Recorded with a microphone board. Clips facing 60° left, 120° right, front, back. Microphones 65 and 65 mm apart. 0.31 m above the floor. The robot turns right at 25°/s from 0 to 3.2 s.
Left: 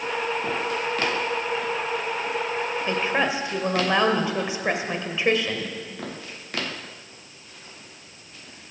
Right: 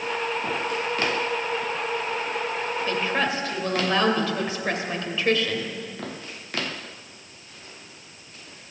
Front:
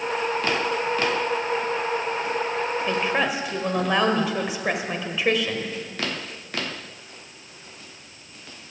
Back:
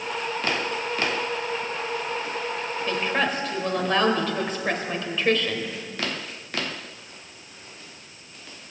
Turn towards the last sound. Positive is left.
turn(degrees=55)